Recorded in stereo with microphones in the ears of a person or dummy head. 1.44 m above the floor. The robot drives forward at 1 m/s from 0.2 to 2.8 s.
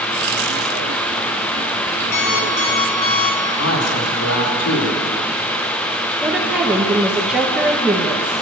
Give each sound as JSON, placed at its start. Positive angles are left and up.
{"t": 2.1, "sound": "an alarm clock", "side_deg": 55, "distance_m": 1.9}
{"t": 3.6, "sound": "a man speaking", "side_deg": 85, "distance_m": 5.0}
{"t": 6.2, "sound": "a woman speaking", "side_deg": -5, "distance_m": 2.0}